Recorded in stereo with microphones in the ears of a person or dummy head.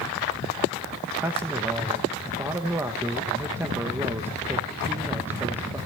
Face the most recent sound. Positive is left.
turn(degrees=-15)  # may be behind; listen again after turning